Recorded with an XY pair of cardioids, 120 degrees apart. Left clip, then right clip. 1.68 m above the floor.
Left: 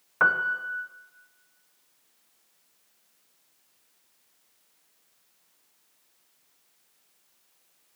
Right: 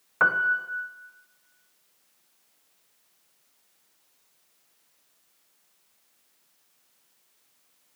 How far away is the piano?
About 1.2 m.